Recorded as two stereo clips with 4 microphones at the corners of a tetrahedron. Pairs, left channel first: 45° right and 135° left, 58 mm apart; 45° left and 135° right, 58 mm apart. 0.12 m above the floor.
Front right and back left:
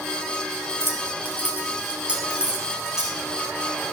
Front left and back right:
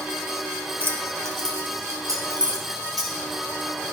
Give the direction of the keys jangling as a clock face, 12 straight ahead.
6 o'clock.